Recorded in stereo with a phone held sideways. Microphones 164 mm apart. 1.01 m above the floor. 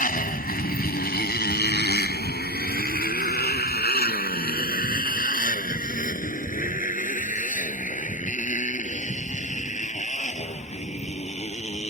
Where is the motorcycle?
60° left (ahead or behind); by 11.9 s 45° left (ahead or behind).